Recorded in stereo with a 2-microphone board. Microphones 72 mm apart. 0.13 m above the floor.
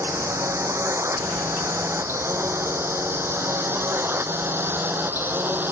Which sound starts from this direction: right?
A drone, at 0.0 s.